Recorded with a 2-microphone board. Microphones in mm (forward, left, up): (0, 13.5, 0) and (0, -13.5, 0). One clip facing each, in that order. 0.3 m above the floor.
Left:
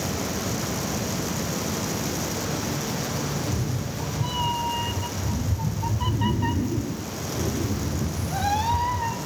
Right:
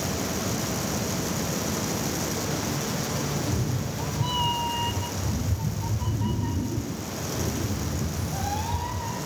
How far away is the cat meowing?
About 3 m.